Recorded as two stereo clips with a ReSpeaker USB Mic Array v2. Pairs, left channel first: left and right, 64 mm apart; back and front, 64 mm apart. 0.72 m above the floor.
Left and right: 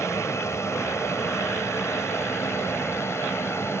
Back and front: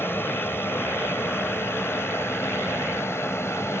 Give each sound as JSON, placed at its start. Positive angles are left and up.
{"t": 0.0, "sound": "an aircraft", "azimuth_deg": 130}